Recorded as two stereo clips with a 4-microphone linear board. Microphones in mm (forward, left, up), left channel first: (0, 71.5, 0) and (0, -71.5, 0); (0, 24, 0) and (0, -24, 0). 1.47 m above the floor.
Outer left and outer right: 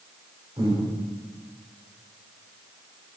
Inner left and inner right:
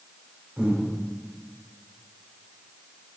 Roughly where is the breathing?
Right.